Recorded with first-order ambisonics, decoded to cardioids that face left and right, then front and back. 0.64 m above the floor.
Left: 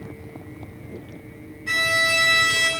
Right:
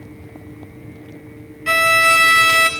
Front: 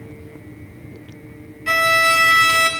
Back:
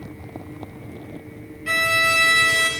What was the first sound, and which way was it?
A violin, 70° right.